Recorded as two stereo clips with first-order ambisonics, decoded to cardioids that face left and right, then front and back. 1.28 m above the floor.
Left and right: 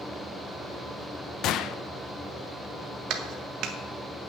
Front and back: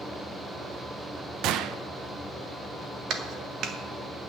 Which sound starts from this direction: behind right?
A clap, at 3.1 s.